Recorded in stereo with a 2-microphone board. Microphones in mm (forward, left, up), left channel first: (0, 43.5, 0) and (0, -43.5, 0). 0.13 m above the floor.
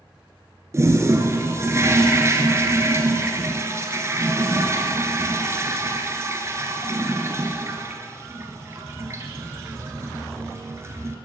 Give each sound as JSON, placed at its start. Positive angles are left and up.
{"t": 0.7, "sound": "a toilet flushing", "side_deg": -30, "distance_m": 1.3}